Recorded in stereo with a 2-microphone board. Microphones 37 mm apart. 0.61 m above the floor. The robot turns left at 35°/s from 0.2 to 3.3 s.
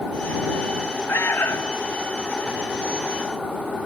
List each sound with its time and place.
1.1 s an alarm: 85° left; by 1.8 s 65° left (ahead or behind)